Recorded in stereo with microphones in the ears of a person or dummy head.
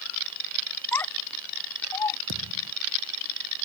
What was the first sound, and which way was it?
A child speaking, 10° left (ahead or behind).